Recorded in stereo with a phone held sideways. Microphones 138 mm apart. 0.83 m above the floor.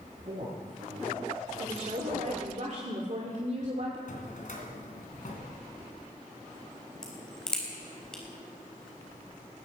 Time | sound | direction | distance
0.2 | a woman speaking | 60° right (ahead or behind) | 7 m
1.6 | a woman speaking | 55° right (ahead or behind) | 1.9 m
4.1 | a drawer | 60° left (ahead or behind) | 2.5 m
7.0 | a crack | 5° left (ahead or behind) | 3.5 m